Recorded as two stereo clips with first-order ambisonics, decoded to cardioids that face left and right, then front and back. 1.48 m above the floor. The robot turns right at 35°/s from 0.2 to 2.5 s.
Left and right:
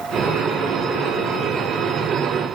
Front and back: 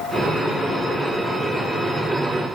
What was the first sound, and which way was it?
Only background noise.